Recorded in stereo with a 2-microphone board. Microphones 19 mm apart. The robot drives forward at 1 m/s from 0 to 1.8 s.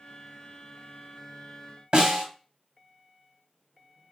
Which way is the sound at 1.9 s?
45° right (ahead or behind).